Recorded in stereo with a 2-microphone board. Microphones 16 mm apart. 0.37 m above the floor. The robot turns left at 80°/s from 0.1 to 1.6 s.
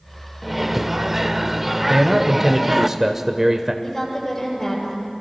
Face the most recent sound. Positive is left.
turn(degrees=20)  # may be behind; listen again after turning